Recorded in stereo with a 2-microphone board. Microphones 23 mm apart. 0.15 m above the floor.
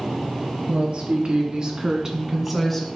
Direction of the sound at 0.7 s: 55° right (ahead or behind).